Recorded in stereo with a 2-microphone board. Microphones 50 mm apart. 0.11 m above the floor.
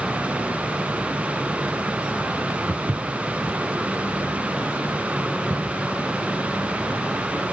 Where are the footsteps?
45° right (ahead or behind), 0.9 m; by 7.0 s 65° right (ahead or behind), 5.5 m.